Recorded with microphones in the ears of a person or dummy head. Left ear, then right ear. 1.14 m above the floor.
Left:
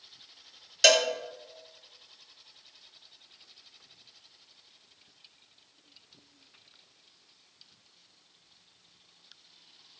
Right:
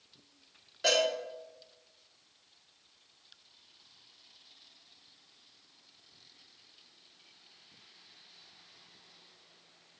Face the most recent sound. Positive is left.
turn(degrees=75)  # may be behind; listen again after turning